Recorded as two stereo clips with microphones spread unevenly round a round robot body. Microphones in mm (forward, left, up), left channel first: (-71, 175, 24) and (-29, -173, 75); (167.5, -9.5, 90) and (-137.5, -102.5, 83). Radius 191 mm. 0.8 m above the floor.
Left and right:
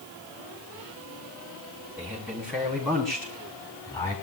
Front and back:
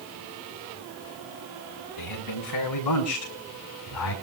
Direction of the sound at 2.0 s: Straight ahead.